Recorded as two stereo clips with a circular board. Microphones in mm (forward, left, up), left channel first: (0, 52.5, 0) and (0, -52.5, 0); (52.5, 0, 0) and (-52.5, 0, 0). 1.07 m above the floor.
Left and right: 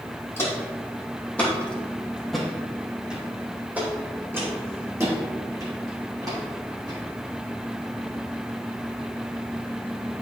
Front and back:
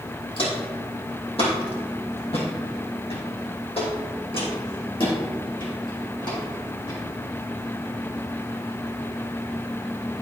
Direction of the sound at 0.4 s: 25° left.